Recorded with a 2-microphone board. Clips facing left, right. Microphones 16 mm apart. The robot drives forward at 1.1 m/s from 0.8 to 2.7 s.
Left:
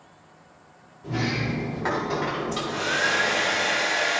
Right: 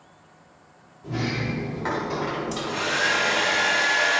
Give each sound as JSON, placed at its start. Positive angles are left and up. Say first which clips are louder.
{"t": 1.0, "sound": "a sliding door", "louder": "left 1 dB", "side_deg": 0, "distance_m": 0.8}
{"t": 2.5, "sound": "a hair dryer", "louder": "right 1 dB", "side_deg": -55, "distance_m": 2.5}